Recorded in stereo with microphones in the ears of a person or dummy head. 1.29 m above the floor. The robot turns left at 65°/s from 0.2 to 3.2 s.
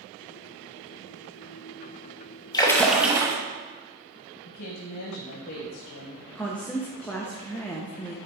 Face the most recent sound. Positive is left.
turn(degrees=5)  # may be behind; listen again after turning